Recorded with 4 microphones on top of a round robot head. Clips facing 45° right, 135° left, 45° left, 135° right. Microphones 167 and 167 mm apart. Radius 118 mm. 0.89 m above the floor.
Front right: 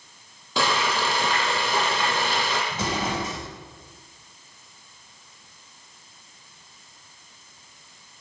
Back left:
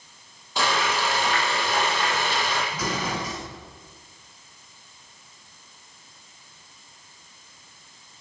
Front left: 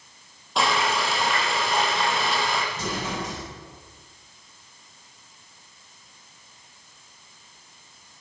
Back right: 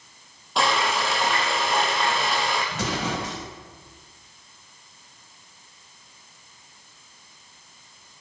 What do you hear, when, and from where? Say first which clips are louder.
0.6 s frying: front right 1 dB, even; 45° right, 8 m
2.7 s an explosion: front right 1 dB, back right 3 dB; 110° right, 7 m